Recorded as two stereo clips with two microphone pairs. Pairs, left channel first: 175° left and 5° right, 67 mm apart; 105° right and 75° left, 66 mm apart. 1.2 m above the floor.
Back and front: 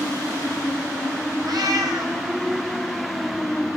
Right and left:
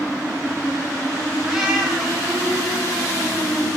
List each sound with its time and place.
1.4 s a cat meowing: 5° right, 4.5 m